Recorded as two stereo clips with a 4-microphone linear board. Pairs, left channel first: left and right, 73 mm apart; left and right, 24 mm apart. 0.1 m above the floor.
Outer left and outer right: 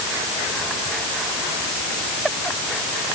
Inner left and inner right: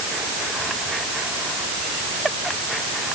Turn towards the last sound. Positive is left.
No sound to turn to.